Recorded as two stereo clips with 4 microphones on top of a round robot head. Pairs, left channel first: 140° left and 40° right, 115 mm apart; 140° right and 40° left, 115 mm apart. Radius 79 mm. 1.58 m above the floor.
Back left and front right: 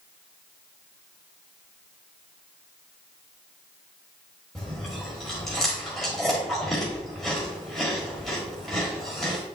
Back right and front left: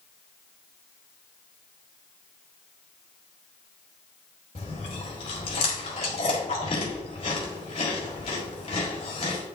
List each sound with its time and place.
4.5 s chewing: 135° right, 1.5 m